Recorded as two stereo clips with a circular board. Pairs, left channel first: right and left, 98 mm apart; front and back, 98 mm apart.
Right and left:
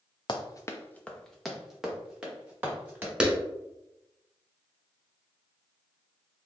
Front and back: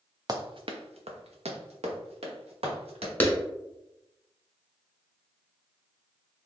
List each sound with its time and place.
0.3 s running footsteps: 130° right, 0.6 m; by 3.1 s 165° left, 2 m
3.2 s a clap: 25° left, 0.9 m